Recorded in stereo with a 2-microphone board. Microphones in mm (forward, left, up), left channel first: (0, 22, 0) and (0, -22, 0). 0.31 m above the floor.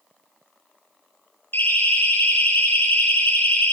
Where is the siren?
55° left (ahead or behind), 9.5 m; by 3.7 s 60° left (ahead or behind), 10.5 m.